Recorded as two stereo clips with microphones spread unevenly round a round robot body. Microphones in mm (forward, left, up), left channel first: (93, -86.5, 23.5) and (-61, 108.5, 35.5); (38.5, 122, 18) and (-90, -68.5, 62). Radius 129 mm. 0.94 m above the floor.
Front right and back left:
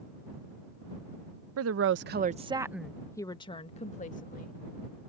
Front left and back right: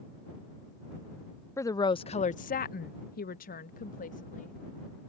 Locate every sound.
1.6 s a woman speaking: 125° left; by 4.5 s straight ahead